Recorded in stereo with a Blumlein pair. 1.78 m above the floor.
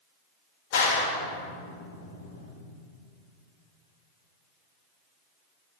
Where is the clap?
50° left, 2.5 m.